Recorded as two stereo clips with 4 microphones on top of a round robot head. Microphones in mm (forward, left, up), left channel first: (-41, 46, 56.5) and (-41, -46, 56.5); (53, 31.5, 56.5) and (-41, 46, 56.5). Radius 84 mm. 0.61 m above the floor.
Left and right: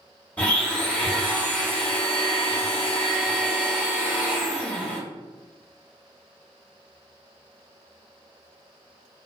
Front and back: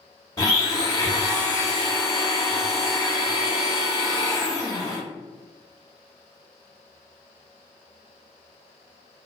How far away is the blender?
About 1.4 m.